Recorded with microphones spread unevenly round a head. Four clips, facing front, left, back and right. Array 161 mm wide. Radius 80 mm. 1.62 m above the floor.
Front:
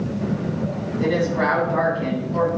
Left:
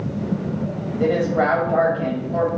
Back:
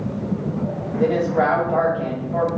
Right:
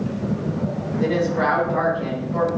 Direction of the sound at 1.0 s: 150° left.